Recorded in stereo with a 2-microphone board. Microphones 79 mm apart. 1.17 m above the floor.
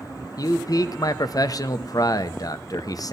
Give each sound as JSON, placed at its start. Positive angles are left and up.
{"t": 0.4, "sound": "a man speaking", "side_deg": 50, "distance_m": 0.7}